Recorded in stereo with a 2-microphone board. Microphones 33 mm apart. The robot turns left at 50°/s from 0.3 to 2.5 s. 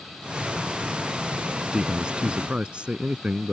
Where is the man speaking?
50° right; by 3.5 s 90° right.